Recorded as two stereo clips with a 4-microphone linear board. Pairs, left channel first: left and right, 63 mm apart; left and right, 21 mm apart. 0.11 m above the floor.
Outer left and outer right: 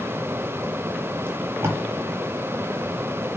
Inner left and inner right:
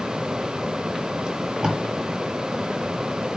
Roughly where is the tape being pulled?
Right.